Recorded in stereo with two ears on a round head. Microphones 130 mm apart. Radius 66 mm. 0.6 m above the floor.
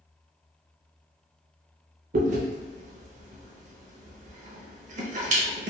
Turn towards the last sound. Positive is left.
turn(degrees=-60)  # may be behind; listen again after turning